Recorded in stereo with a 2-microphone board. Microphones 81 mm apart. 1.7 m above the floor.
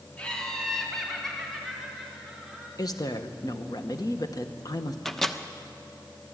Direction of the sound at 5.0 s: 5° left (ahead or behind).